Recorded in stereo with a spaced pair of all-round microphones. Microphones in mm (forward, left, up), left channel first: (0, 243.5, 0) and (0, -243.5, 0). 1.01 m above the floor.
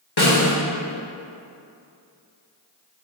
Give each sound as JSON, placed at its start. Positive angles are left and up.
{"t": 0.2, "sound": "a snare drum", "side_deg": 55, "distance_m": 1.1}